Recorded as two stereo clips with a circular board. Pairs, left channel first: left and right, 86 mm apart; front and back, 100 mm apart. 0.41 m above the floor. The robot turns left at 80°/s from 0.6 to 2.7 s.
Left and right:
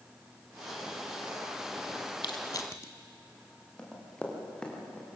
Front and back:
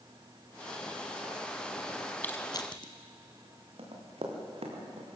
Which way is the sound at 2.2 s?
70° left.